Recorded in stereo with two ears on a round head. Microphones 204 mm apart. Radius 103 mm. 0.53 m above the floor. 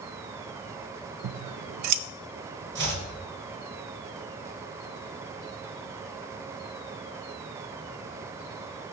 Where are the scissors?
80° right, 0.6 m.